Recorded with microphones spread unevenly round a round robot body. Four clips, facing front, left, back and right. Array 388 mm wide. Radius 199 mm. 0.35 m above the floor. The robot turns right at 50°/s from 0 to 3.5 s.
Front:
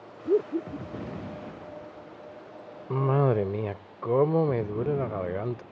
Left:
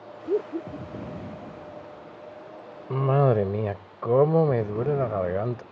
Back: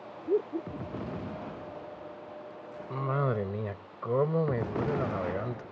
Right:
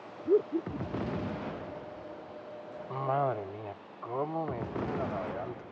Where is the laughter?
Straight ahead; by 1.2 s 50° left.